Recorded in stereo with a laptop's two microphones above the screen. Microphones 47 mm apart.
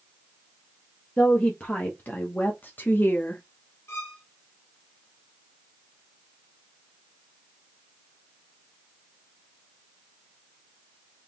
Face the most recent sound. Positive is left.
turn(degrees=70)  # may be behind; listen again after turning